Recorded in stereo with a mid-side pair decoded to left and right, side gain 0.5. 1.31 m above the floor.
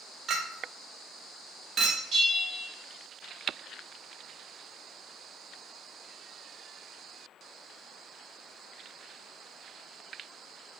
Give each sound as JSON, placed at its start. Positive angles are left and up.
{"t": 0.3, "sound": "a clink", "azimuth_deg": -50, "distance_m": 0.6}
{"t": 2.1, "sound": "a bell", "azimuth_deg": -60, "distance_m": 1.7}